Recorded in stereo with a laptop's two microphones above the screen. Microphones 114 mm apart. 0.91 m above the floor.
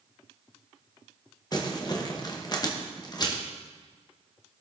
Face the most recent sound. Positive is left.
turn(degrees=35)  # may be behind; listen again after turning